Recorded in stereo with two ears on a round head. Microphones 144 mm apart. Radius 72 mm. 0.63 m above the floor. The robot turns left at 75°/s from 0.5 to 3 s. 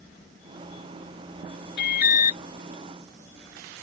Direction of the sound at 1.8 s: 80° left.